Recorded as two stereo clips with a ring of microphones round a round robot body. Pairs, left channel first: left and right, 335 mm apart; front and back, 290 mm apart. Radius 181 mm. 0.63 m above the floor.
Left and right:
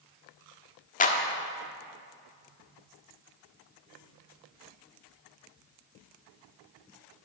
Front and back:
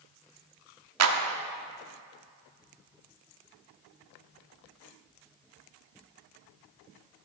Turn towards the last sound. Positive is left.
turn(degrees=155)